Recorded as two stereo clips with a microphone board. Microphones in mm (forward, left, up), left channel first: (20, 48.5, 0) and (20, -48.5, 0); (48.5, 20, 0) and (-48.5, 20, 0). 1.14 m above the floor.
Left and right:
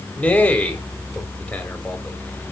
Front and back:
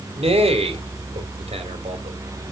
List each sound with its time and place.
0.2 s a man speaking: 170° left, 4.5 m